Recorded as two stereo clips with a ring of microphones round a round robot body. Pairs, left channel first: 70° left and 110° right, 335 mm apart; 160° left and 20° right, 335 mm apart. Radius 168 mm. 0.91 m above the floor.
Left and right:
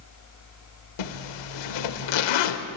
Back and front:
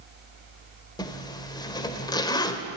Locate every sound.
1.0 s a zipper: 80° left, 1.6 m